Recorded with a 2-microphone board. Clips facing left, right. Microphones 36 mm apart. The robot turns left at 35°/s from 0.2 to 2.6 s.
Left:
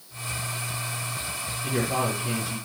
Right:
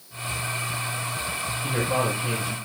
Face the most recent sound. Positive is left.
turn(degrees=-60)